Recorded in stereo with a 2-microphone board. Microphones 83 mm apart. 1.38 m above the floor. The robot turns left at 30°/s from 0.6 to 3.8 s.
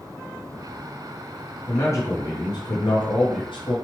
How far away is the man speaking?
About 0.6 m.